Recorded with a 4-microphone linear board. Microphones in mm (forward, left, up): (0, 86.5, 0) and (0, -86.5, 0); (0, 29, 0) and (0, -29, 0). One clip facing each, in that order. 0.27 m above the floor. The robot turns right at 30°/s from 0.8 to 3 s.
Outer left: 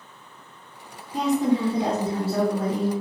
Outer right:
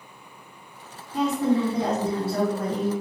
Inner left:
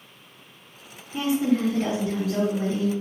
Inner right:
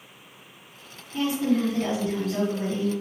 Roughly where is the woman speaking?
Centre.